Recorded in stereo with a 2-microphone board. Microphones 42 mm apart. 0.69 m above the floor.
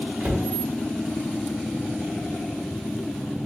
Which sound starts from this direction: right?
A cupboard door, at 0.2 s.